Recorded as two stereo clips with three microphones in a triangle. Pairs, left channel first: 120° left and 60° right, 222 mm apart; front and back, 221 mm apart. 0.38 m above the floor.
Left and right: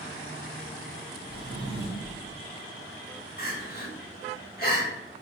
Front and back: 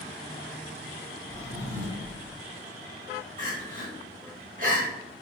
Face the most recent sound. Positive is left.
turn(degrees=145)